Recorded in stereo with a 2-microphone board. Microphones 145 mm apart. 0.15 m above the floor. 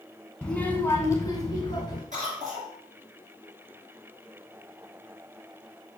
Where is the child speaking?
5° left (ahead or behind), 1.3 m; by 2.0 s 30° left (ahead or behind), 1.7 m.